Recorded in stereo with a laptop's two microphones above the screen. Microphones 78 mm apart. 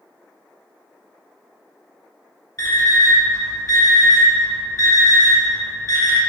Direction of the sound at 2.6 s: 50° left (ahead or behind).